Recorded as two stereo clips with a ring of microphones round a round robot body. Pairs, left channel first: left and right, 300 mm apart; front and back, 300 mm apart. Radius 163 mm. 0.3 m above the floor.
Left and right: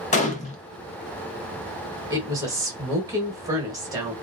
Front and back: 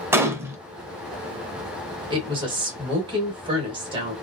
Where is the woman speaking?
145° right, 1.1 m.